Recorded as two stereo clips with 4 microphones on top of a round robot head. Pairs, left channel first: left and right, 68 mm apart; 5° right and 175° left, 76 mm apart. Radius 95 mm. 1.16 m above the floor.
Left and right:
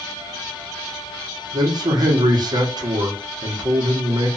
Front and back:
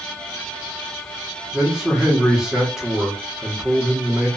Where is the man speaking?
100° right, 1.3 m.